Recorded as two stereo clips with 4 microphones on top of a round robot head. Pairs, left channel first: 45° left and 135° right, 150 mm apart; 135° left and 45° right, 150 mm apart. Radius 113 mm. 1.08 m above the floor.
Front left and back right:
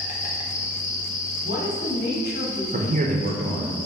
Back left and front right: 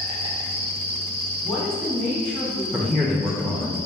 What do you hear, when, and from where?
0.0 s an insect: 5° left, 0.8 m
1.4 s a woman speaking: 45° left, 1.4 m
2.7 s a man speaking: 135° right, 0.6 m